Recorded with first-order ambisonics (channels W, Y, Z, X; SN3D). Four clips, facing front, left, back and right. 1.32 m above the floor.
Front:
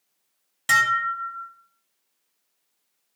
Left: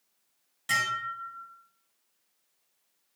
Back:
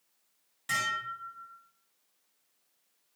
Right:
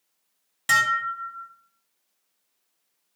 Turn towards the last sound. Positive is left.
turn(degrees=-40)